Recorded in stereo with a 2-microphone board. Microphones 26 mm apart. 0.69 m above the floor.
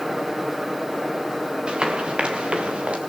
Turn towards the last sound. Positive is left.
turn(degrees=-50)  # may be behind; listen again after turning